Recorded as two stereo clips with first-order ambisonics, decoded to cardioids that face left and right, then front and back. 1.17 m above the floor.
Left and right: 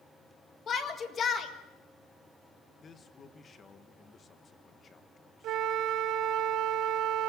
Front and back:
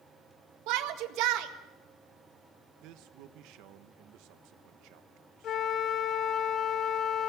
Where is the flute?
55° right, 0.8 m.